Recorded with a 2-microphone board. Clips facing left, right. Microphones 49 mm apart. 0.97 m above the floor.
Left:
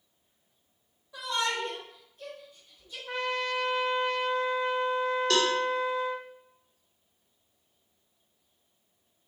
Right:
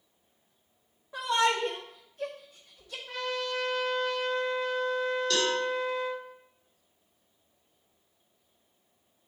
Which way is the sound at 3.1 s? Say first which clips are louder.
Left 2 dB; 30° left (ahead or behind).